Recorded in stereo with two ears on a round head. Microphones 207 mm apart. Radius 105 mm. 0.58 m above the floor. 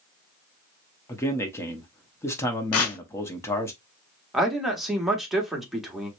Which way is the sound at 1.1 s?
10° left (ahead or behind).